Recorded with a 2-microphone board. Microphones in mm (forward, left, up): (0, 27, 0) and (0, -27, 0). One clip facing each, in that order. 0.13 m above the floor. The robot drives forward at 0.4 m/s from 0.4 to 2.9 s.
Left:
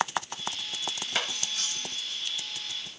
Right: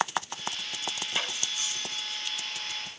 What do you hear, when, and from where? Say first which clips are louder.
1.1 s cutlery clinking: left 2 dB; 80° left, 10 m; by 2.2 s 75° left (ahead or behind), 10 m